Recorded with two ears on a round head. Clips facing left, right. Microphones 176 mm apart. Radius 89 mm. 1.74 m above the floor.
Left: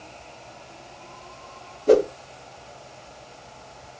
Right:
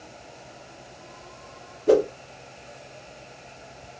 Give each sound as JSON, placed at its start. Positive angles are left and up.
{"t": 1.9, "sound": "a whoosh", "side_deg": -10, "distance_m": 1.0}